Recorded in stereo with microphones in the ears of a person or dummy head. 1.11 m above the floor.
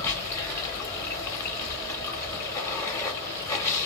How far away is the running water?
About 0.9 m.